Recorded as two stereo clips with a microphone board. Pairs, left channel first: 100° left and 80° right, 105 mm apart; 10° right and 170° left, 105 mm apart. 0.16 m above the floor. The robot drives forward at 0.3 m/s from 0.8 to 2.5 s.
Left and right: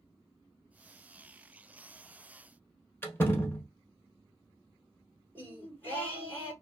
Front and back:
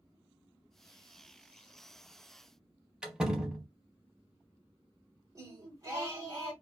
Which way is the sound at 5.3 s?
155° left.